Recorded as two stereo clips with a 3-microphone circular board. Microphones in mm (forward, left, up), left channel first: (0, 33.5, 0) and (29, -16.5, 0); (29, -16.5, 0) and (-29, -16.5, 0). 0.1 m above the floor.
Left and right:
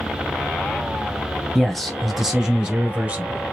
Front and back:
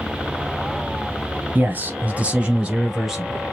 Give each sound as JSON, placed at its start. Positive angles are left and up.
{"t": 1.6, "sound": "a man speaking", "azimuth_deg": -165, "distance_m": 1.4}